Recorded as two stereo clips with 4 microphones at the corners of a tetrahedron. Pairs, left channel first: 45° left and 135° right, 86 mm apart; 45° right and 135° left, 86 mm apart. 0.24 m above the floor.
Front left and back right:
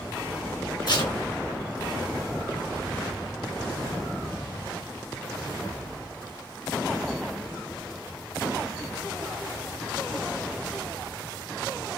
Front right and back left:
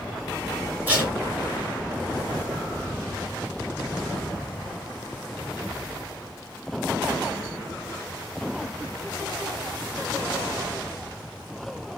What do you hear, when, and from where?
0.9 s tape being pulled: 65° left, 3 m